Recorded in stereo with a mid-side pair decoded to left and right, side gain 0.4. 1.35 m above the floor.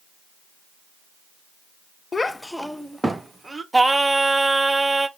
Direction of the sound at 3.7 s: 15° right.